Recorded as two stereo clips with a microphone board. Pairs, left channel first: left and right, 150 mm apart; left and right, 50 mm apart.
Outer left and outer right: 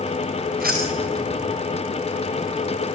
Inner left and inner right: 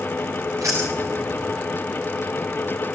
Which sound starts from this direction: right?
Keys jangling, at 0.6 s.